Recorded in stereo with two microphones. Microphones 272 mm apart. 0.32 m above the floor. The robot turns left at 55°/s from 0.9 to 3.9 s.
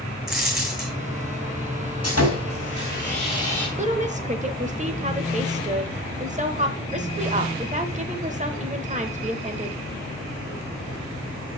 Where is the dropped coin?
Centre (ahead or behind), 1.9 m.